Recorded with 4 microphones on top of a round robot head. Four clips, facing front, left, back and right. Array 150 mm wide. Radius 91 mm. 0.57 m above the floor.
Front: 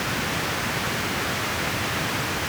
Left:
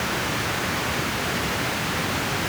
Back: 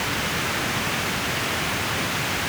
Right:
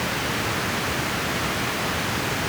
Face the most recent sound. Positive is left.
No sound to turn to.